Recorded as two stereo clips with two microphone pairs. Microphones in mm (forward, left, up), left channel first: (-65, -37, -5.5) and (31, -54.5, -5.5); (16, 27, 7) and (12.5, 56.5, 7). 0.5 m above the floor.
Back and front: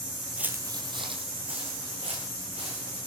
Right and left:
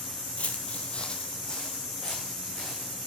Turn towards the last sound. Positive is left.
turn(degrees=-10)